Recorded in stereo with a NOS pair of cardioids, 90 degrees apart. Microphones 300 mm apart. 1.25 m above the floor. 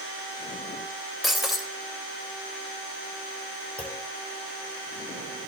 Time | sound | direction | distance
1.2 | breaking glass | straight ahead | 3 m
3.8 | a clunk | 5° left | 2.5 m